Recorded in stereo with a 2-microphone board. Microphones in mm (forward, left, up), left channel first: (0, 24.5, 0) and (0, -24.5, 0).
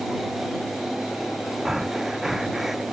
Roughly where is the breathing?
Centre.